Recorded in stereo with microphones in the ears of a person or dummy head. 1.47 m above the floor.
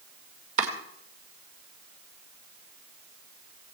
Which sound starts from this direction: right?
Chopping, at 0.6 s.